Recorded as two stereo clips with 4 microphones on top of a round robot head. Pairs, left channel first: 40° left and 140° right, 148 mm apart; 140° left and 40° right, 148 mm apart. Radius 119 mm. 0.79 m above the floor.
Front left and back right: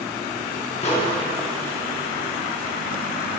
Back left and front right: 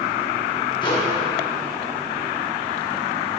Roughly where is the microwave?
Left.